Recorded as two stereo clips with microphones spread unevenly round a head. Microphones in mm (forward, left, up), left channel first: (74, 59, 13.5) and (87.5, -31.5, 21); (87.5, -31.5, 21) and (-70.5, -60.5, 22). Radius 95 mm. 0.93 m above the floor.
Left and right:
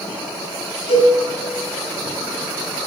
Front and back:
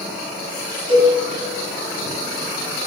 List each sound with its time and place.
0.9 s a cowbell: 125° left, 5 m